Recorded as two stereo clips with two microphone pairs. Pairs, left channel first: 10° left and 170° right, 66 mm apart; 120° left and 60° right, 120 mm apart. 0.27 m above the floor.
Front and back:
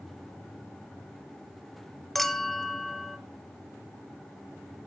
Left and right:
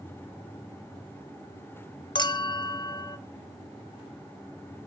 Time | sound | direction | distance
2.1 | a clink | 95° left | 0.6 m